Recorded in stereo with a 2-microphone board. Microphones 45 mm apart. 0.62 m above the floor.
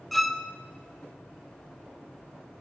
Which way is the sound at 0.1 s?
5° left (ahead or behind).